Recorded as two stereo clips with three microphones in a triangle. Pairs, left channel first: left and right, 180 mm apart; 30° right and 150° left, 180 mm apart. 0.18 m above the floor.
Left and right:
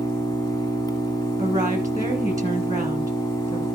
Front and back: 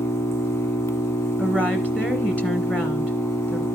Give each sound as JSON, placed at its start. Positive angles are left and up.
{"t": 0.0, "sound": "an engine running", "azimuth_deg": 35, "distance_m": 1.0}
{"t": 1.4, "sound": "a woman speaking", "azimuth_deg": -140, "distance_m": 1.1}